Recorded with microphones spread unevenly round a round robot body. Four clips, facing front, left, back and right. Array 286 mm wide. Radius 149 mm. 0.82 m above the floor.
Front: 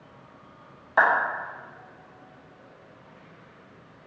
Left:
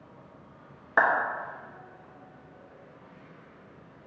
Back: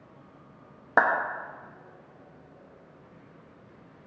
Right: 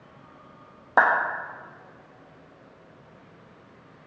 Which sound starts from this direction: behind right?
A clap, at 1.0 s.